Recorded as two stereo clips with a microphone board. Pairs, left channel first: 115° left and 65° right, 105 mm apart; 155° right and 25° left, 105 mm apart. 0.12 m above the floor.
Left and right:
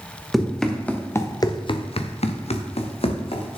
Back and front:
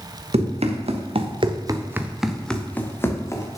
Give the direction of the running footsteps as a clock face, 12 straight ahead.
11 o'clock.